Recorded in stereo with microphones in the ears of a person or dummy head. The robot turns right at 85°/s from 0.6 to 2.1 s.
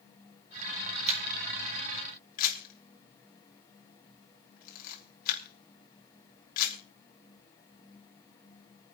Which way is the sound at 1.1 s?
40° right (ahead or behind).